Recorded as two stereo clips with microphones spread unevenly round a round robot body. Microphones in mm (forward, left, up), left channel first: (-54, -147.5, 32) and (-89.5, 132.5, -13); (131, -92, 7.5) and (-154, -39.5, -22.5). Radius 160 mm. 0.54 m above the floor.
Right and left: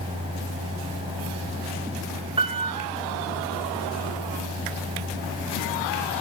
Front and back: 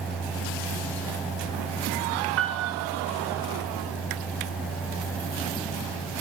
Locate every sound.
2.4 s a piano: 155° left, 1.2 m